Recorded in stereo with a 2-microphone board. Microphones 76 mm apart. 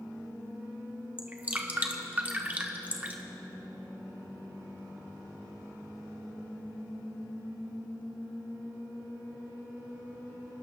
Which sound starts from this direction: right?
Dripping, at 1.2 s.